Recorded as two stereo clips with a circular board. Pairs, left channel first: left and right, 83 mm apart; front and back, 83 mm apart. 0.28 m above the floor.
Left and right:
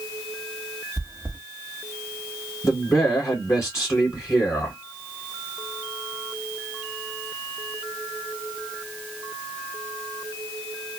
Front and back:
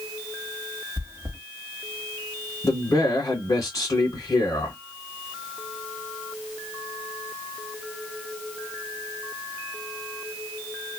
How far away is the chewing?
About 1.3 m.